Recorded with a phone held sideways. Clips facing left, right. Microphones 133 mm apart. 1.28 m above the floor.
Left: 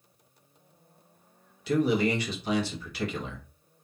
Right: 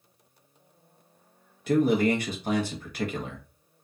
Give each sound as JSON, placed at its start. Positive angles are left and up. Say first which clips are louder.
{"t": 1.7, "sound": "a man speaking", "louder": "right 3 dB", "side_deg": -50, "distance_m": 0.8}